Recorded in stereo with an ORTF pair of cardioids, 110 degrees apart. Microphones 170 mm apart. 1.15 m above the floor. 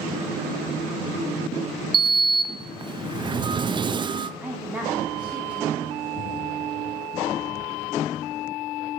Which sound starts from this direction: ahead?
A woman speaking, at 4.4 s.